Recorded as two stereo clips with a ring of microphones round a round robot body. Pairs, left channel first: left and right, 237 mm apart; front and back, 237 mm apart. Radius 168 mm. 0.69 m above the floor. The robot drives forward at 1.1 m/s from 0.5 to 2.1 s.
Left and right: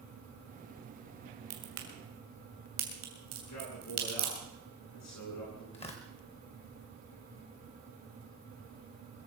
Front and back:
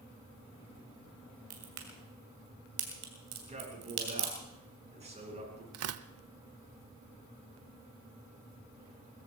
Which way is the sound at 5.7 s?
165° left.